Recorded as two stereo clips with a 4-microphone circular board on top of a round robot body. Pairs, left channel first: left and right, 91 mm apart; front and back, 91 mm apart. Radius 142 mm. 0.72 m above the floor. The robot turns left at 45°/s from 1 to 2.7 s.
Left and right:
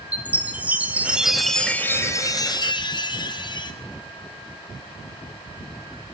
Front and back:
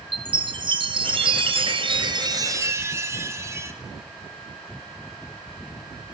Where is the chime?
165° right, 2 m; by 3.7 s 120° left, 2 m.